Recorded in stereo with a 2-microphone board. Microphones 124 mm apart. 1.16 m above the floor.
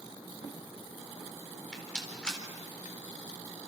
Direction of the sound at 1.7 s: 5° left (ahead or behind).